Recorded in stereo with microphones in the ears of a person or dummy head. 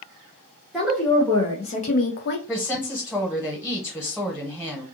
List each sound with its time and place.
0.7 s a woman speaking: centre (ahead or behind), 0.8 m; by 2.4 s 70° left (ahead or behind), 0.6 m
2.5 s a woman speaking: 5° right (ahead or behind), 0.8 m